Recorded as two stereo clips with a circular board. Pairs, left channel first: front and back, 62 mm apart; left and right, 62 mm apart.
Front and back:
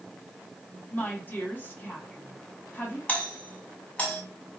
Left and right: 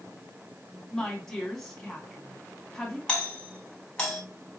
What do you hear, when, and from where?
0.9 s a woman speaking: 15° left, 1.8 m
3.1 s a doorbell: 35° left, 1.9 m